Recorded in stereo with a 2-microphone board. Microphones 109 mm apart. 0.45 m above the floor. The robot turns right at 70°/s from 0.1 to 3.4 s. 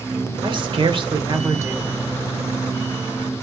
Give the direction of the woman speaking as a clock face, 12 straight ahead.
4 o'clock.